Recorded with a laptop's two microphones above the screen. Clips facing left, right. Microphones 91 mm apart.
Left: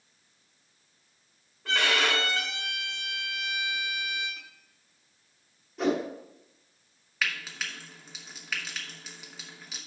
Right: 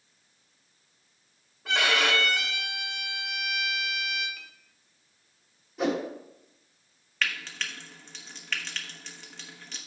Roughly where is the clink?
Left.